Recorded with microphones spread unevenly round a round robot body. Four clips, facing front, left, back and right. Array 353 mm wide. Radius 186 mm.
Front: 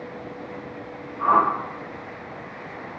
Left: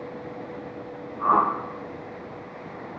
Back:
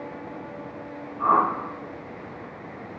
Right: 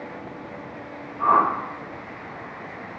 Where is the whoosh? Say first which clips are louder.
Right 2 dB, front 1 dB; 155° right, 0.6 m.